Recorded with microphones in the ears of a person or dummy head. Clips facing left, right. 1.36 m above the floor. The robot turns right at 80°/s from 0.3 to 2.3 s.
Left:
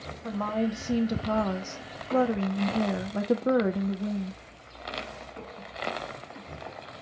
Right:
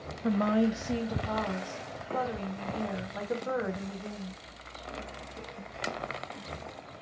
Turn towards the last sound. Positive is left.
turn(degrees=125)